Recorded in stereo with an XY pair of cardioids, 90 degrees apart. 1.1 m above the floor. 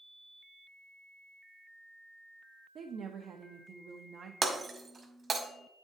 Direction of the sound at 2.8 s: 65° right.